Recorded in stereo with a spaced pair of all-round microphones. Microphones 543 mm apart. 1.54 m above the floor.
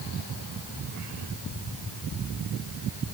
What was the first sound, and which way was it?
Only background noise.